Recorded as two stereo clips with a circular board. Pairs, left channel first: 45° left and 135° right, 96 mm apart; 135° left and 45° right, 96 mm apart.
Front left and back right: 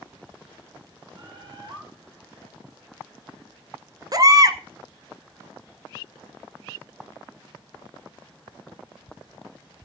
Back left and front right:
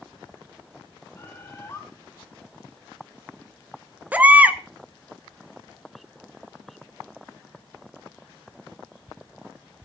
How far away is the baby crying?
About 0.8 m.